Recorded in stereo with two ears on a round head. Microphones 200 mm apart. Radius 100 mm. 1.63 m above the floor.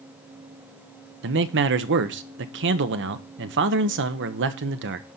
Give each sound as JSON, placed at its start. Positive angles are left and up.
{"t": 1.2, "sound": "a man speaking", "side_deg": -55, "distance_m": 0.8}